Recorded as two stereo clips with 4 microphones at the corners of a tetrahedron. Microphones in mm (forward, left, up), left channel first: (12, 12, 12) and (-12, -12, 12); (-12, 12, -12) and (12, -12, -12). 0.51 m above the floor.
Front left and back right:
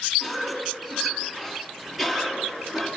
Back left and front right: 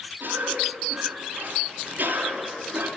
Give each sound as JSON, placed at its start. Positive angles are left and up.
{"t": 0.2, "sound": "a cough", "azimuth_deg": -60, "distance_m": 5.5}